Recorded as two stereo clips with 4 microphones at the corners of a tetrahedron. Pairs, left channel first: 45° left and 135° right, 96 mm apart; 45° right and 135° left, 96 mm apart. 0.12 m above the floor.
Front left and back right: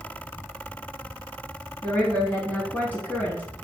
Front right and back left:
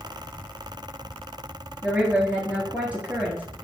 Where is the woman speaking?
85° left, 1.1 m.